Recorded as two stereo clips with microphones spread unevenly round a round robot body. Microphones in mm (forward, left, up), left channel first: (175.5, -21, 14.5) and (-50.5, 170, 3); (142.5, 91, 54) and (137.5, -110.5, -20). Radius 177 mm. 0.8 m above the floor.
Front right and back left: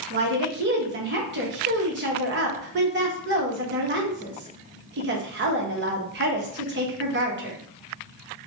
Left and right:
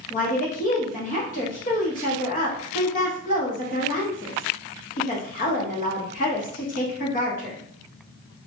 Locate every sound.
0.1 s a woman speaking: 150° left, 0.7 m